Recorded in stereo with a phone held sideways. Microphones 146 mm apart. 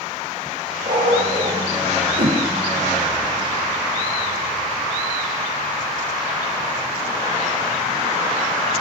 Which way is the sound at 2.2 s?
75° right (ahead or behind).